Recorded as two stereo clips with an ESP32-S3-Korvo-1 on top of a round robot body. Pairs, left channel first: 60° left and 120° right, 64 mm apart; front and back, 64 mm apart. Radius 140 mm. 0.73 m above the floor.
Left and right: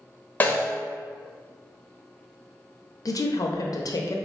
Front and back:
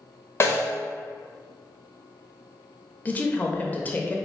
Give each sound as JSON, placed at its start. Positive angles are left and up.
{"t": 0.4, "sound": "a snare drum", "azimuth_deg": 15, "distance_m": 1.0}
{"t": 3.0, "sound": "a woman speaking", "azimuth_deg": 65, "distance_m": 0.7}